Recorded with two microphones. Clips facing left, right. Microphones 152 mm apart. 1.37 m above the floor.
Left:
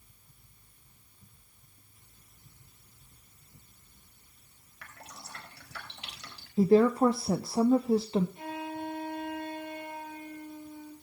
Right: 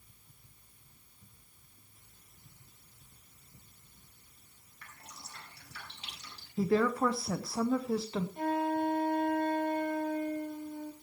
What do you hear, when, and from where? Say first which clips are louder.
4.8 s dripping: left 4 dB; 80° left, 3.5 m
6.6 s a woman speaking: left 6 dB; 25° left (ahead or behind), 0.7 m
8.4 s a flute: right 7 dB; 50° right (ahead or behind), 1.2 m